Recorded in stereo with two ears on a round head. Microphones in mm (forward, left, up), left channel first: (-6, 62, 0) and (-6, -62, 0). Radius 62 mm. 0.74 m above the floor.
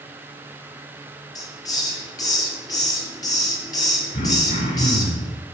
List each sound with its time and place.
1.4 s a hiss: 30° left (ahead or behind), 5.5 m
4.1 s throat clearing: 55° left (ahead or behind), 3 m